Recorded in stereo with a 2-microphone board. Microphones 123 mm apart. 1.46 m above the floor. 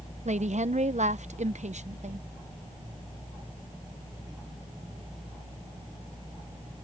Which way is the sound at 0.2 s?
70° right (ahead or behind).